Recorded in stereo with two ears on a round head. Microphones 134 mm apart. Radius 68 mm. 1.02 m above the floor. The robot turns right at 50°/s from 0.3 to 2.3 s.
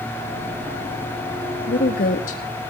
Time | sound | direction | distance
1.7 | a woman speaking | 90° left | 1.8 m